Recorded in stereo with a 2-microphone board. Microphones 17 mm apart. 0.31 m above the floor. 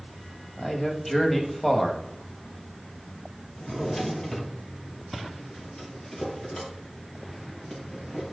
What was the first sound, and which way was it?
A man speaking, 30° left (ahead or behind).